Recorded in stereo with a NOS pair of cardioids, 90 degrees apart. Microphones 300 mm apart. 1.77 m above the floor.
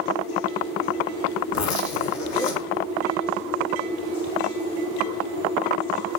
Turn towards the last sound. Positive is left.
turn(degrees=65)